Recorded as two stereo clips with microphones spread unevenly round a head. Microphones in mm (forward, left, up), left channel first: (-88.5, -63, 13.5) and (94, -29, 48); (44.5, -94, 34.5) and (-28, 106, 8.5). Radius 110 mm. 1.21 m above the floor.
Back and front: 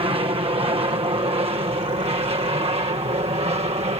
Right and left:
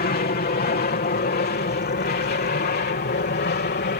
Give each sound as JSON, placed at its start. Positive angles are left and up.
{"t": 0.0, "sound": "an aircraft", "azimuth_deg": -45}